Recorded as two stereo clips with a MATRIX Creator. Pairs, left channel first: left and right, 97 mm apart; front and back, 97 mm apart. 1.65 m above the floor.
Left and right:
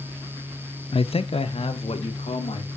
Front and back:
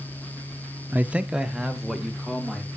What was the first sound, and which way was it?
A man speaking, 110° left.